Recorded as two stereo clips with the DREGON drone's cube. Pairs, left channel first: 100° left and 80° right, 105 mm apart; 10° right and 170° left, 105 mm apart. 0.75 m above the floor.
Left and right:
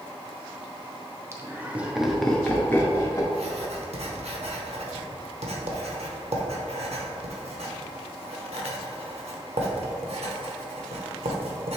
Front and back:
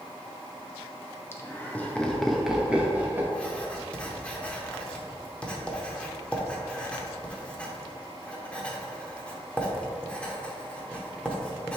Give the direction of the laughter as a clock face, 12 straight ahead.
2 o'clock.